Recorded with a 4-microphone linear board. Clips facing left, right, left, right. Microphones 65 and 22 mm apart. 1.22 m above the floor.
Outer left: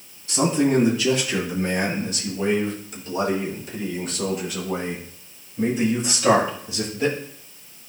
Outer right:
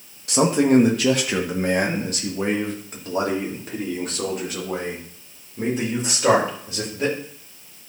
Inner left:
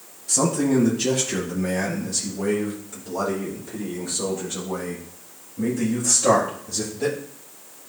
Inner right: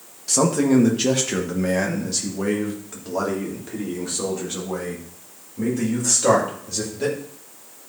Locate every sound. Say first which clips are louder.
0.3 s a man speaking: outer right 3 dB, inner right 3 dB; 65° right (ahead or behind), 1.7 m; by 7.1 s 40° right (ahead or behind), 5.5 m